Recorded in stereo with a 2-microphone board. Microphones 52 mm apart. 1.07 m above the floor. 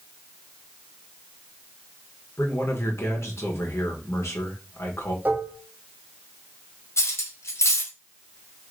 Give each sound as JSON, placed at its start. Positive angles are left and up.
{"t": 2.4, "sound": "a man speaking", "side_deg": 60, "distance_m": 1.1}
{"t": 5.2, "sound": "dishes clattering", "side_deg": -35, "distance_m": 0.9}
{"t": 7.0, "sound": "cutlery clinking", "side_deg": 60, "distance_m": 0.9}